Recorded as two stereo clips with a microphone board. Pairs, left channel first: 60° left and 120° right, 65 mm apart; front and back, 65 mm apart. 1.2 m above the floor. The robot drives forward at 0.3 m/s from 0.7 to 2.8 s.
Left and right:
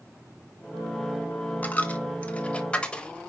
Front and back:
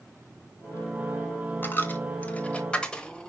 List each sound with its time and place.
1.6 s a dropped coin: 15° left, 1.1 m; by 3.3 s 35° left, 1.0 m